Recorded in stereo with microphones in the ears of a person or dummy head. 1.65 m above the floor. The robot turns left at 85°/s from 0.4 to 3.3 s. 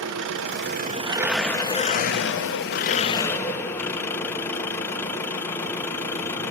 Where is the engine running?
100° right, 1.0 m; by 6.5 s 15° left, 1.0 m.